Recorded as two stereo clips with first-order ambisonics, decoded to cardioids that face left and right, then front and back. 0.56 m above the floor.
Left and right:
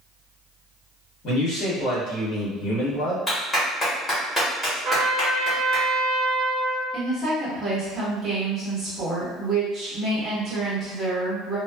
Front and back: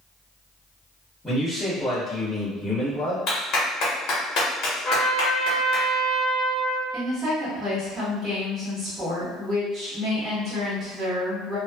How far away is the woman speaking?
About 1.2 m.